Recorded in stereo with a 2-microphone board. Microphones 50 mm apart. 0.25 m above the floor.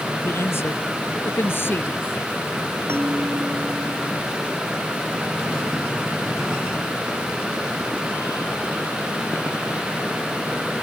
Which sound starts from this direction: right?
A bell, at 2.9 s.